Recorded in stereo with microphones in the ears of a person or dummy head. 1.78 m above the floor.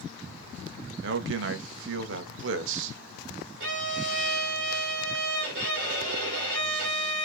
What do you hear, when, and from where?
1.0 s a man speaking: 70° right (ahead or behind), 0.6 m
3.6 s a violin: 60° right (ahead or behind), 1.7 m